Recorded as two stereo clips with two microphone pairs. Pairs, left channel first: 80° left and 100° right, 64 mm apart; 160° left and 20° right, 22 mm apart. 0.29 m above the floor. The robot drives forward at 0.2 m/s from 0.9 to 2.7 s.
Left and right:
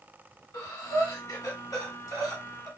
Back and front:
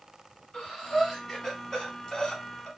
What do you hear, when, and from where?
0.5 s breathing: 85° left, 1.0 m; by 2.7 s 110° left, 1.0 m